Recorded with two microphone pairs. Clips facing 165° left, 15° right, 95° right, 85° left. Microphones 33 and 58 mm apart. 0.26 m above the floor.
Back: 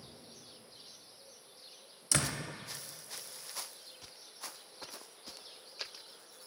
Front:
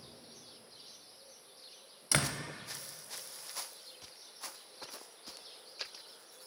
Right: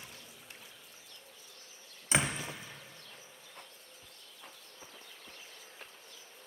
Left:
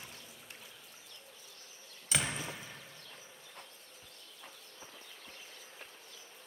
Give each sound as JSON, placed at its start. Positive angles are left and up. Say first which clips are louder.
{"t": 2.1, "sound": "a door slam", "louder": "front 1 dB, right 4 dB", "azimuth_deg": -60, "distance_m": 0.7}